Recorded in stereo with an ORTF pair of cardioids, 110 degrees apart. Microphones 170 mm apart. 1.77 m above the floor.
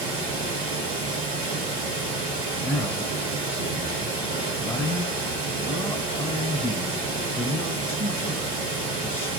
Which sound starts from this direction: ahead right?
Running water, at 0.0 s.